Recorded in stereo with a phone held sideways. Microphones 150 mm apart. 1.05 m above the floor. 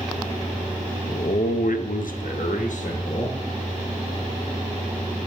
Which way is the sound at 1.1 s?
40° left (ahead or behind).